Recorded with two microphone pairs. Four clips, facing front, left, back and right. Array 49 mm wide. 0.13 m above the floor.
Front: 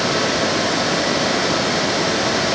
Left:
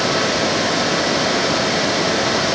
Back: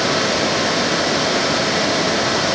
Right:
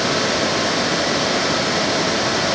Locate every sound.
Only background noise.